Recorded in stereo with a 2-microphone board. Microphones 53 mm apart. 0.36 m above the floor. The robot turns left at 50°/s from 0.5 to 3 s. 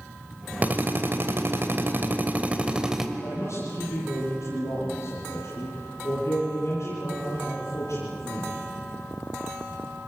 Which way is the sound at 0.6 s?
45° right.